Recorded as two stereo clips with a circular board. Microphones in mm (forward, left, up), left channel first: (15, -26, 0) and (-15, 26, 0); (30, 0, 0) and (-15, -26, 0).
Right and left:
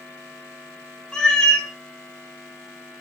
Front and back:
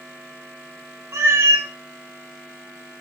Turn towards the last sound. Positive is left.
turn(degrees=-135)